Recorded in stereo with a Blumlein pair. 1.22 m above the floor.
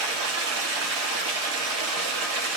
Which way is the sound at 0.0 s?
40° right.